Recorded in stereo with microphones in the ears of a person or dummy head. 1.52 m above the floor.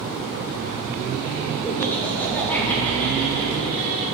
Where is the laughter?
20° left (ahead or behind), 1.3 m; by 4.0 s 15° left (ahead or behind), 4.5 m.